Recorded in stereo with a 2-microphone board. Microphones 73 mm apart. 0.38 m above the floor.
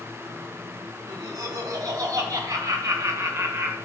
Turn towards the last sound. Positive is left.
turn(degrees=-25)  # may be behind; listen again after turning